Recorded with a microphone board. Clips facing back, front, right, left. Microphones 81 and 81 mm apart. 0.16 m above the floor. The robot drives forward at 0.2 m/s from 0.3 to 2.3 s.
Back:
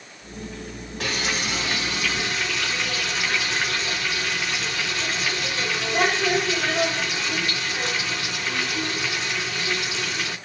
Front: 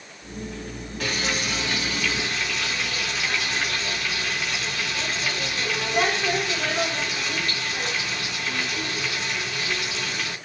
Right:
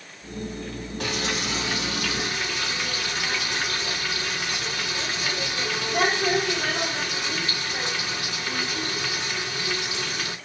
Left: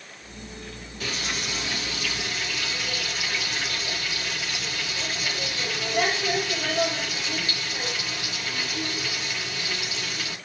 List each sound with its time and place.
1.0 s frying: 115° right, 3 m